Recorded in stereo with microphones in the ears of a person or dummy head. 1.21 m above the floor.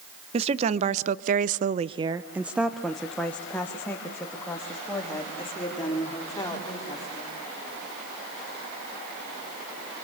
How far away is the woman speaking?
About 1.2 m.